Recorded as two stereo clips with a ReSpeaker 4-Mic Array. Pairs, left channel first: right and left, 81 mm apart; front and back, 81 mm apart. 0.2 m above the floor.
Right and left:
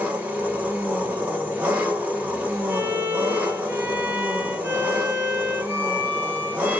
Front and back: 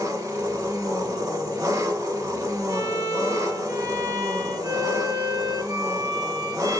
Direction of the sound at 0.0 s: 155° left.